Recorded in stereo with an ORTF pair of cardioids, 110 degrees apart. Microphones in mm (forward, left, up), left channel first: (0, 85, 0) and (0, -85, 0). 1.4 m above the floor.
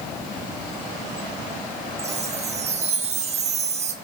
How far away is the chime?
About 2 m.